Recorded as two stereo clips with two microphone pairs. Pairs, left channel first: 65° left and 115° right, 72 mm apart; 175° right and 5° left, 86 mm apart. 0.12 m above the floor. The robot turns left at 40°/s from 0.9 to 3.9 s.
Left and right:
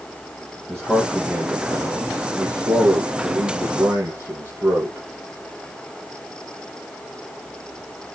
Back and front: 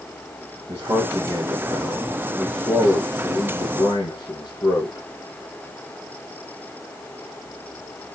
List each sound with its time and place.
0.7 s a man speaking: 25° right, 3.5 m; by 5.0 s 145° right, 3.5 m